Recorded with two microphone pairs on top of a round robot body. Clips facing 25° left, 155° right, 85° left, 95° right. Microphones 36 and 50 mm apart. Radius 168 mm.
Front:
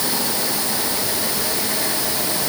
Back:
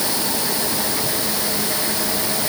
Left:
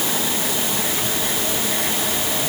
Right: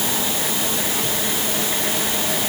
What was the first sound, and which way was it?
Only background noise.